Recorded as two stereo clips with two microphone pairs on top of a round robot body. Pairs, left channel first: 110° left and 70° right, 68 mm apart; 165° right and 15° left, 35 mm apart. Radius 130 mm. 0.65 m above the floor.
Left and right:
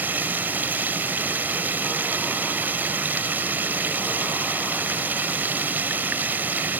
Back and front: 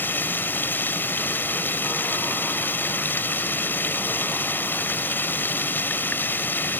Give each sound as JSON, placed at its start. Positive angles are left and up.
{"t": 0.0, "sound": "running water", "azimuth_deg": -135}